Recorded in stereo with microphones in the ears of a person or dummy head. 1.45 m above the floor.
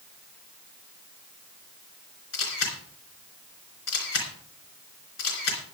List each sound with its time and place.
2.3 s a camera shutter: 80° left, 3.5 m